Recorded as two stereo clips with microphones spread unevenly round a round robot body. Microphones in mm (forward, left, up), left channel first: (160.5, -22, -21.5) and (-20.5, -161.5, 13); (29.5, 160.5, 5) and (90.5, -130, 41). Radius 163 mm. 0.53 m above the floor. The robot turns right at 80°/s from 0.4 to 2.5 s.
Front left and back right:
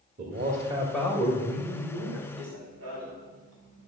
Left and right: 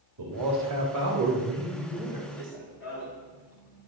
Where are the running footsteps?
145° left, 5 m; by 3.9 s 170° left, 3.5 m.